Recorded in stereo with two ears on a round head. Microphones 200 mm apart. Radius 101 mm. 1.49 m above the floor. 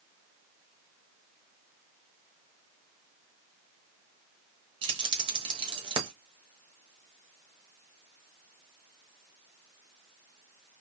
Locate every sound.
4.8 s keys jangling: 20° right (ahead or behind), 0.9 m